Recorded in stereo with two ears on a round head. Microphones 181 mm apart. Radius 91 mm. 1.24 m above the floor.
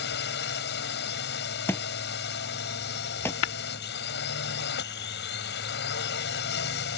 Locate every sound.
0.0 s a drone: 50° left (ahead or behind)
1.7 s a thud: 10° left (ahead or behind)
3.4 s tapping: 70° left (ahead or behind)